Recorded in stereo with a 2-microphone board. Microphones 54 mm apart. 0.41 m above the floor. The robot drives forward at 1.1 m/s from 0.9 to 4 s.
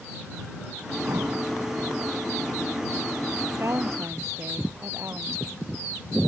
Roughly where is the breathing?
Right.